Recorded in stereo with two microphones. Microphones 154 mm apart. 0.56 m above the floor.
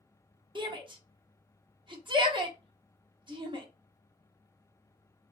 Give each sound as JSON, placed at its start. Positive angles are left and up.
{"t": 0.6, "sound": "a shout", "side_deg": -30, "distance_m": 0.9}